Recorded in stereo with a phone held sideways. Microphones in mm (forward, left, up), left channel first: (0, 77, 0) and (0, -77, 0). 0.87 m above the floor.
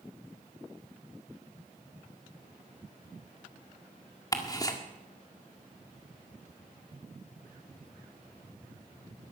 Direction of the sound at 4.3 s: 25° left (ahead or behind).